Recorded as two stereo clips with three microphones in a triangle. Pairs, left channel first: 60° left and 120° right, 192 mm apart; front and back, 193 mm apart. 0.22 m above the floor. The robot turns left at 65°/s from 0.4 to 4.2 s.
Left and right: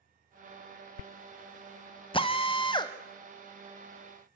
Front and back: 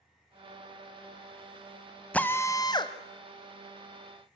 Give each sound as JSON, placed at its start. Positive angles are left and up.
{"t": 2.1, "sound": "a drill", "azimuth_deg": 75, "distance_m": 1.0}